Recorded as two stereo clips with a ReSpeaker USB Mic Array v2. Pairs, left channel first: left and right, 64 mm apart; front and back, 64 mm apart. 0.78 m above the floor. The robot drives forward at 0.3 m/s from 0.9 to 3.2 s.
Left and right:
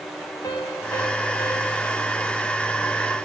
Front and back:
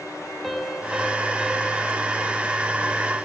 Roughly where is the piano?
Left.